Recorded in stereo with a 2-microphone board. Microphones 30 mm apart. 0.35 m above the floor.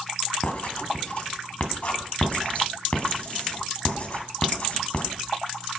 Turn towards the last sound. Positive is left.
turn(degrees=45)  # may be behind; listen again after turning